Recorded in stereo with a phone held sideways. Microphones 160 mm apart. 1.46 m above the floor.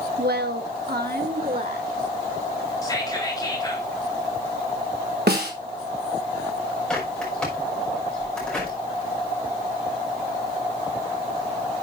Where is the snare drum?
80° right, 2.5 m.